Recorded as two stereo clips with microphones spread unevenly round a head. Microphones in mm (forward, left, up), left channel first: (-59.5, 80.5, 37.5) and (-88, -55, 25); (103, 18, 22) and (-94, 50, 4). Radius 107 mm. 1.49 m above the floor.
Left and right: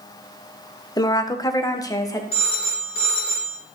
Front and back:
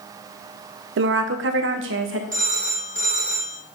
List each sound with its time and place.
1.0 s a woman speaking: 140° left, 0.9 m; by 2.2 s 145° left, 1.7 m
2.3 s a phone ringing: 120° left, 3 m